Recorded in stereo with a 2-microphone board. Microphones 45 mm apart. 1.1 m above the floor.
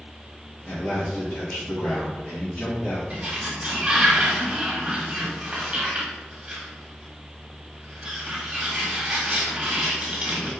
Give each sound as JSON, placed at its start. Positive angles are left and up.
{"t": 0.7, "sound": "a man speaking", "side_deg": 40, "distance_m": 2.0}
{"t": 3.1, "sound": "a sliding door", "side_deg": -25, "distance_m": 1.5}